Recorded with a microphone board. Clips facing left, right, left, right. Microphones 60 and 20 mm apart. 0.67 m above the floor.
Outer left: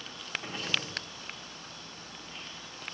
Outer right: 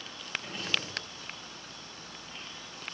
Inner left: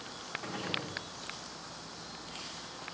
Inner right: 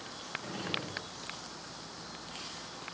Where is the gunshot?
25° left (ahead or behind), 3.5 m.